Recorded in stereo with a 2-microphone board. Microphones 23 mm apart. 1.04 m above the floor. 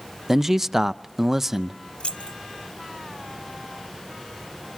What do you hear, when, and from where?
0.3 s a man speaking: 15° right (ahead or behind), 0.5 m
2.0 s keys jangling: 50° left (ahead or behind), 0.9 m